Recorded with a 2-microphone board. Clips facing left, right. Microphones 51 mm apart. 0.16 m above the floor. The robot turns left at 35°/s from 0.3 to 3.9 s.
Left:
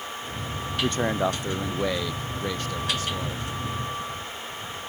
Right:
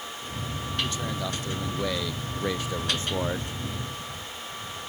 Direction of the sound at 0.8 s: 55° left.